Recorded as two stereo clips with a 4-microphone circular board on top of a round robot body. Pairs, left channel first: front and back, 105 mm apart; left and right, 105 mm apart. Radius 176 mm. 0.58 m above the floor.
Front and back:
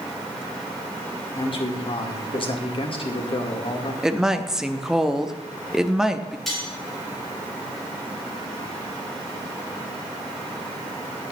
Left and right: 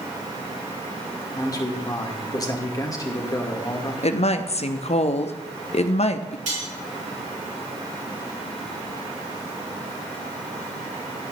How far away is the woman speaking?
About 1.1 m.